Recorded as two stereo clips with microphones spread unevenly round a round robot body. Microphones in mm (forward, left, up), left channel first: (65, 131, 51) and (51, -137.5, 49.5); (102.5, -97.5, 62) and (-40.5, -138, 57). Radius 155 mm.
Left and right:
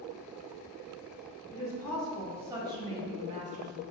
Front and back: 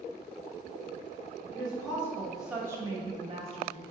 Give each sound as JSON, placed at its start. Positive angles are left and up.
{"t": 1.5, "sound": "a woman speaking", "azimuth_deg": 20, "distance_m": 0.9}